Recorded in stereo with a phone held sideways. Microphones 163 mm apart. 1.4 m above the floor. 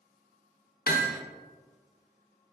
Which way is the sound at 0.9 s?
70° left (ahead or behind).